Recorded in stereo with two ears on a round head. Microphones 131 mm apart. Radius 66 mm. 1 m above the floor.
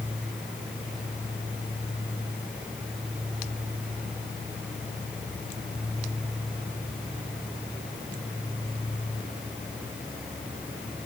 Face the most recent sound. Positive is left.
No sound to turn to.